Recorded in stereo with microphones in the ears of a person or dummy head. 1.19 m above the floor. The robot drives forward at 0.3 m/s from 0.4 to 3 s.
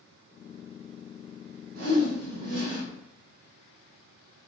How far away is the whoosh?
About 1.3 m.